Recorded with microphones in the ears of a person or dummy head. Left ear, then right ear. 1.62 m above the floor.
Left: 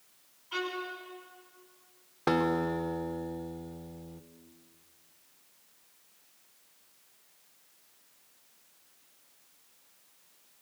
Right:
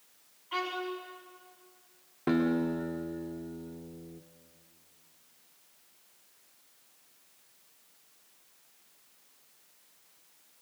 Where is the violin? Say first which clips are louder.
Right 1 dB; 10° right (ahead or behind), 5.5 m.